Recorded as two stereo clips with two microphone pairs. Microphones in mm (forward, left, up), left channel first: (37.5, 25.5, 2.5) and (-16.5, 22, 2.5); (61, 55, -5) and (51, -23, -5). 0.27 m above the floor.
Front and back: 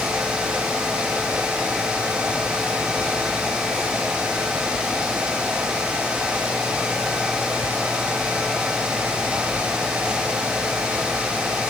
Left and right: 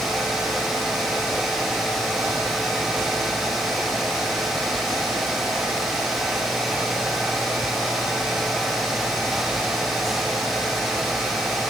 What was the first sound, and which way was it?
Only background noise.